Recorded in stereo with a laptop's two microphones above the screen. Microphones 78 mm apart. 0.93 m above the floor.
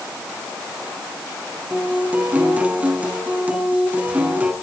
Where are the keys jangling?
No keys jangling in this recording.